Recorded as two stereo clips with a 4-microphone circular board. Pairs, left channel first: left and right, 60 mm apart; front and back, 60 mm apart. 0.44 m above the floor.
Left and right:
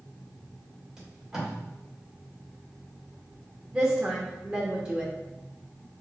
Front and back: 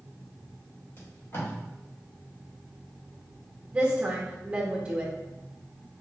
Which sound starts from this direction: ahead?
Tape being pulled, at 1.0 s.